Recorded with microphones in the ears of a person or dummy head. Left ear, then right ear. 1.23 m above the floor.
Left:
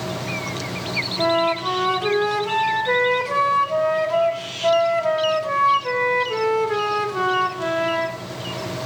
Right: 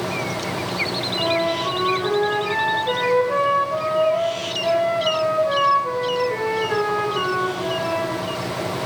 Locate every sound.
1.2 s a flute: 30° left (ahead or behind), 1.8 m